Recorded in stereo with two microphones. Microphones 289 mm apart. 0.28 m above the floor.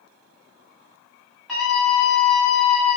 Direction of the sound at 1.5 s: Centre (ahead or behind).